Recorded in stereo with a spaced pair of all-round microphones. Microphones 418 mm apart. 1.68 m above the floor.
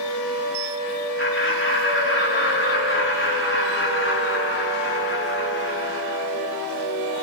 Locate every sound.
1.2 s laughter: 30° left (ahead or behind), 4 m